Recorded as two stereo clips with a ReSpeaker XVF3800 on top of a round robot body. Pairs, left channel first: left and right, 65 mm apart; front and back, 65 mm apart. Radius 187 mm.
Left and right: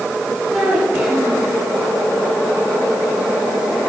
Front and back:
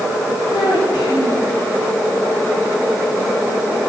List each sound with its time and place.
0.5 s a child speaking: 15° right, 7 m